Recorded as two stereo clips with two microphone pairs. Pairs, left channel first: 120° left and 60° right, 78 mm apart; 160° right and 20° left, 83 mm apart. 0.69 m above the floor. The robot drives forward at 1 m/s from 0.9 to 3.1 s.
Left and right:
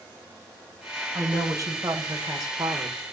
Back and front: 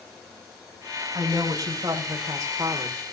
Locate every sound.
1.1 s a woman speaking: 15° right, 3 m; by 3.0 s 35° right, 1.6 m